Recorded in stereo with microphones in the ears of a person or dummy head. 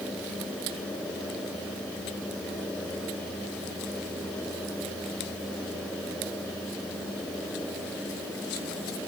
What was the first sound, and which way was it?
Only background noise.